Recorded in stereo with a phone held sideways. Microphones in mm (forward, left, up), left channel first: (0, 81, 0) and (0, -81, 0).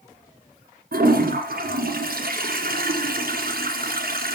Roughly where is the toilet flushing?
Right.